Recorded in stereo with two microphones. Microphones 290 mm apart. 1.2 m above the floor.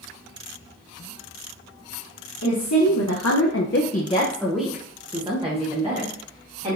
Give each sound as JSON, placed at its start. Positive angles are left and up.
{"t": 2.4, "sound": "a woman speaking", "side_deg": 80, "distance_m": 0.9}